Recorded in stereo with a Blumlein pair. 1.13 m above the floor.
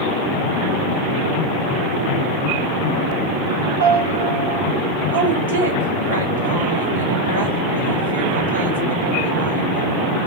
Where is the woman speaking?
65° right, 2 m.